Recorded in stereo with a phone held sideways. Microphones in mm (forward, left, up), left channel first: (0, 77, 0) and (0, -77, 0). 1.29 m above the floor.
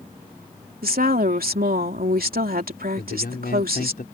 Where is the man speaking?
85° left.